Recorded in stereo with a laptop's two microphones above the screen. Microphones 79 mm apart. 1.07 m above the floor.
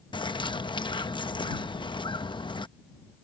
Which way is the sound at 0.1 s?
80° left.